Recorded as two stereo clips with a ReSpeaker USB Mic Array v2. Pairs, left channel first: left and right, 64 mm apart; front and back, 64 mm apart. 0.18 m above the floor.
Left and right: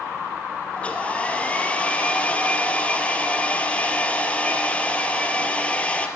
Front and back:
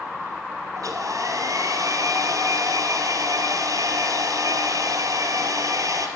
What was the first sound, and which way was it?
A hair dryer, 160° left.